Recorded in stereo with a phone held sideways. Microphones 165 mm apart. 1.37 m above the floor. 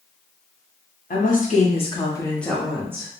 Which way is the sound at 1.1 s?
55° left (ahead or behind).